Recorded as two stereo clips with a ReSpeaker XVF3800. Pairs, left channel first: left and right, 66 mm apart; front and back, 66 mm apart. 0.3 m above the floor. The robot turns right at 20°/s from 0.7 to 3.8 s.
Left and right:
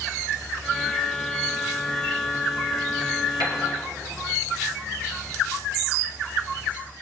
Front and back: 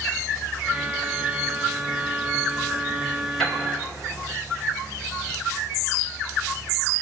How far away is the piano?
About 3 m.